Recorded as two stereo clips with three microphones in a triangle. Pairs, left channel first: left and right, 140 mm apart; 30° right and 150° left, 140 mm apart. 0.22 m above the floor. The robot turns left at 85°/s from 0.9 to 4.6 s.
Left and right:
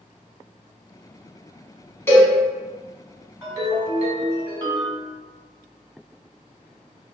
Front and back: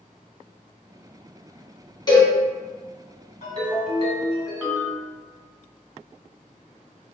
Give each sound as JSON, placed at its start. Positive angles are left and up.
{"t": 2.1, "sound": "a cowbell", "azimuth_deg": 20, "distance_m": 0.9}
{"t": 3.4, "sound": "a ringtone", "azimuth_deg": -30, "distance_m": 1.3}